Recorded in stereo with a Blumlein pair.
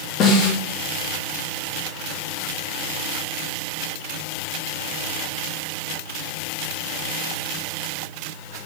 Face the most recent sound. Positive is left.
turn(degrees=30)